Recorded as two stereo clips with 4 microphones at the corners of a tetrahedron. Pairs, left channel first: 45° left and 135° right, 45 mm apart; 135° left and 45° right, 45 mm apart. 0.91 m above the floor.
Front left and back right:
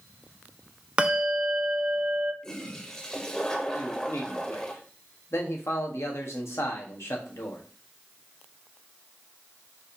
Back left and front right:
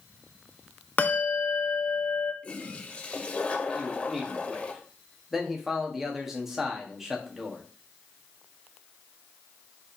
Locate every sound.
1.0 s a bell: 170° left, 0.6 m
2.4 s a toilet flushing: 110° left, 0.7 m
3.7 s a man speaking: 40° left, 1.1 m